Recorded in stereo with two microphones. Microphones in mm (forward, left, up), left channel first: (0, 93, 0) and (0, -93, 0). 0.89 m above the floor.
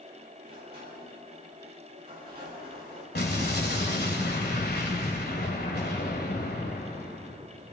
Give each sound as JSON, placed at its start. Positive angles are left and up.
{"t": 0.4, "sound": "a sliding door", "side_deg": -65, "distance_m": 4.0}
{"t": 3.1, "sound": "an explosion", "side_deg": 65, "distance_m": 1.8}